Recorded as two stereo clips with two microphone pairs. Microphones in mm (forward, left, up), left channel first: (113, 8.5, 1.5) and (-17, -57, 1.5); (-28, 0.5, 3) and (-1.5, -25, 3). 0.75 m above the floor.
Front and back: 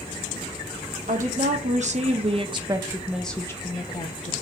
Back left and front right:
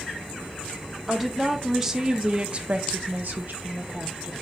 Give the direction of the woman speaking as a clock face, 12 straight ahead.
4 o'clock.